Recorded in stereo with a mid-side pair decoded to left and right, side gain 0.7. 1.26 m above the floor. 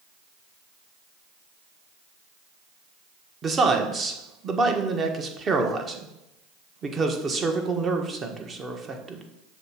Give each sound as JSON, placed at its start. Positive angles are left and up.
{"t": 3.4, "sound": "a man speaking", "azimuth_deg": -30, "distance_m": 1.2}